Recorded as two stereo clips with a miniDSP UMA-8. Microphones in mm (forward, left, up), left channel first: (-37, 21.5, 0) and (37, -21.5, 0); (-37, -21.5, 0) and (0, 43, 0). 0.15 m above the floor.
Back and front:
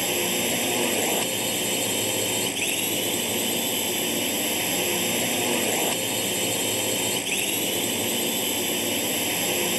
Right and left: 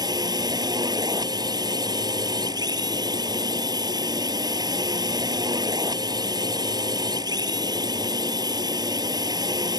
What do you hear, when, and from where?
0.0 s a drone: 60° left